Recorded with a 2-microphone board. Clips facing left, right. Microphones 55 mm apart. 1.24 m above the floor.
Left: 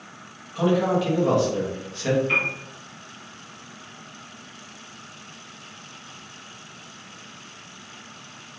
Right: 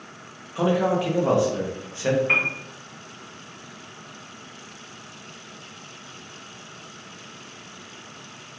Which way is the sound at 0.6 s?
25° right (ahead or behind).